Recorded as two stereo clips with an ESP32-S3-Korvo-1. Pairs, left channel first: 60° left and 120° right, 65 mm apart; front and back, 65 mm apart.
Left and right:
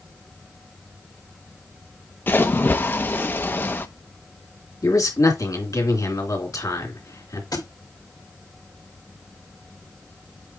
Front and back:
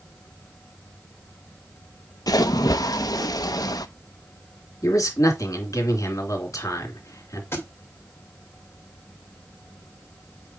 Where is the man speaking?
30° left, 3 m.